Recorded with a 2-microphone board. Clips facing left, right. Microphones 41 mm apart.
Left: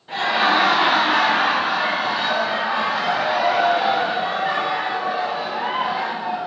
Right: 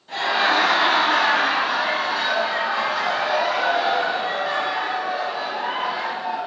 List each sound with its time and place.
0.1 s laughter: 20° left (ahead or behind), 1.0 m